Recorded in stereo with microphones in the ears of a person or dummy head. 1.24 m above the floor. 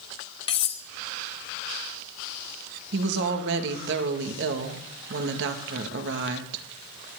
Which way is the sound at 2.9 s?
65° right (ahead or behind).